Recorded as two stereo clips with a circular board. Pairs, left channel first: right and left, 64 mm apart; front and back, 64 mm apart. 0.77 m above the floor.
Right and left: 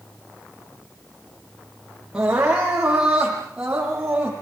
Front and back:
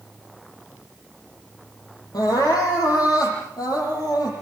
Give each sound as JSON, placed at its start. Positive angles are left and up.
{"t": 2.1, "sound": "crying", "azimuth_deg": 15, "distance_m": 7.5}